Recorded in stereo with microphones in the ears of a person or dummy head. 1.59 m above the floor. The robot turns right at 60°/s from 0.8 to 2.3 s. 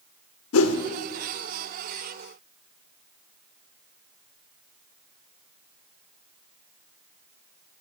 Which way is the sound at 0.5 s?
75° left (ahead or behind).